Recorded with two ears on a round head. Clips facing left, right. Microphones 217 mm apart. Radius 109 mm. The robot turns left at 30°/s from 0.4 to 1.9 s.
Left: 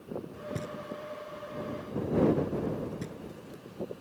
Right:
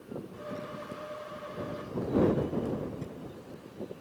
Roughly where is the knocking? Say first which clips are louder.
Left 4 dB; left.